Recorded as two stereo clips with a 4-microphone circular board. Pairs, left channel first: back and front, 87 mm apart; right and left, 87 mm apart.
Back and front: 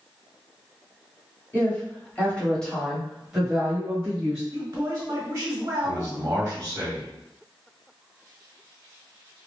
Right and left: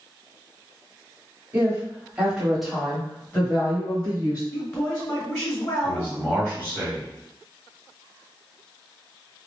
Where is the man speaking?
35° right, 1.7 m.